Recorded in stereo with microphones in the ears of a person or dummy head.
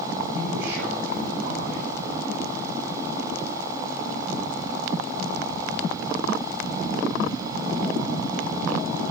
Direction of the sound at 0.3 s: 75° right (ahead or behind).